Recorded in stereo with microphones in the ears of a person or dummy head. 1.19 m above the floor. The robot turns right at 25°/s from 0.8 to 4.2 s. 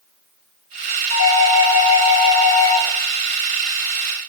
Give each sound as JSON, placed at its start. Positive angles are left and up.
{"t": 1.1, "sound": "a doorbell", "azimuth_deg": 95, "distance_m": 4.5}